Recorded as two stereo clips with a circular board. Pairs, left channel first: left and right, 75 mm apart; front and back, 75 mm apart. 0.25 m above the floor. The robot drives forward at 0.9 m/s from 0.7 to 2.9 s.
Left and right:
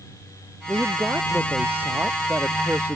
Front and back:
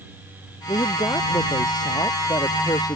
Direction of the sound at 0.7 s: 20° right.